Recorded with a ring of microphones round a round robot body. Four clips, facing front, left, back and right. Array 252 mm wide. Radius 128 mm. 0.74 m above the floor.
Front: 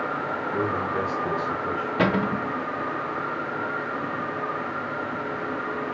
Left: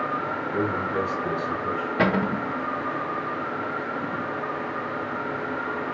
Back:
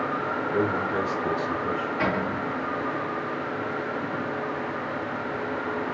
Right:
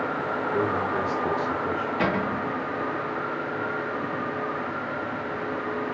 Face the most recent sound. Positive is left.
turn(degrees=50)